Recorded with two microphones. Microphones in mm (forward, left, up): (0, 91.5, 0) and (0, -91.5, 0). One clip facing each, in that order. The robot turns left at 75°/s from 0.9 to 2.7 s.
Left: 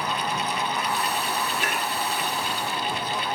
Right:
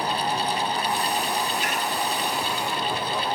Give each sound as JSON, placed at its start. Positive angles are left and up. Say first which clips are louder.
{"t": 1.6, "sound": "dishes clattering", "louder": "right 1 dB", "side_deg": 55, "distance_m": 9.0}